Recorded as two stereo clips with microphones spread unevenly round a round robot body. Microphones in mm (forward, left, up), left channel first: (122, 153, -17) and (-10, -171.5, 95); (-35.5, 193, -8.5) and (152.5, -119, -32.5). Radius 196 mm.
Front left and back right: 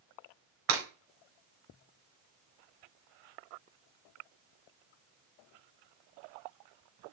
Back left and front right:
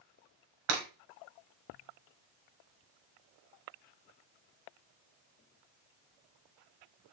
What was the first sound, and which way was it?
Breaking glass, 90° right.